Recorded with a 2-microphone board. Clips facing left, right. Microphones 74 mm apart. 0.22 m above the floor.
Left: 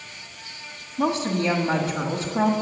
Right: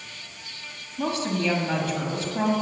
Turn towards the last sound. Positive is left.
turn(degrees=20)  # may be behind; listen again after turning